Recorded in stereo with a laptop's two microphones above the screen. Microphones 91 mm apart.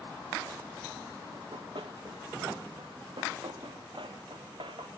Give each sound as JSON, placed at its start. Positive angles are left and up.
{"t": 1.3, "sound": "running footsteps", "side_deg": -65, "distance_m": 3.0}